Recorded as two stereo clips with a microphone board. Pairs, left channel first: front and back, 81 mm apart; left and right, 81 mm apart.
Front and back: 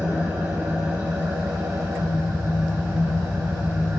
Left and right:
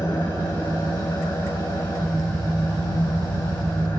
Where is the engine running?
125° left, 5.5 m.